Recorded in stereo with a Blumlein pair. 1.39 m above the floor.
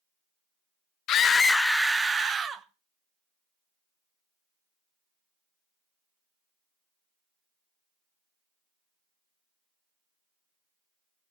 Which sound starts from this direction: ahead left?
A scream, at 1.1 s.